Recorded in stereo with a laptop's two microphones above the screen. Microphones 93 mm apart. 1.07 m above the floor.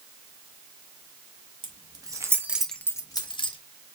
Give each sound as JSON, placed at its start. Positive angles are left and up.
{"t": 1.6, "sound": "keys jangling", "side_deg": -55, "distance_m": 1.3}